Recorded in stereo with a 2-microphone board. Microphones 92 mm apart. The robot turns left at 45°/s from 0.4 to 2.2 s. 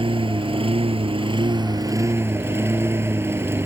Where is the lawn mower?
70° right; by 3.7 s 155° right.